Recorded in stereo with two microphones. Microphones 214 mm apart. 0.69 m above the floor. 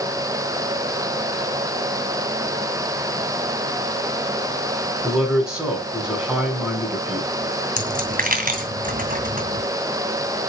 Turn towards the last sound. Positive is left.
turn(degrees=-40)  # may be behind; listen again after turning